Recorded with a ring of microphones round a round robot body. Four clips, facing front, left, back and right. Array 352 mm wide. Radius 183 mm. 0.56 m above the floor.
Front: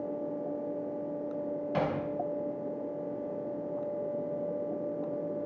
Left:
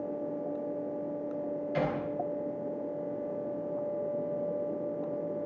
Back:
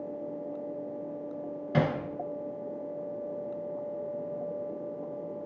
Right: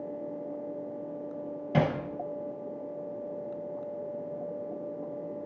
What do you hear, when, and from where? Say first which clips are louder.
1.7 s hammering: right 5 dB, back 4 dB; 120° right, 4 m